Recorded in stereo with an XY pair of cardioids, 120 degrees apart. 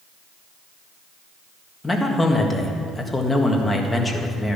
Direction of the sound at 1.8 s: 15° left.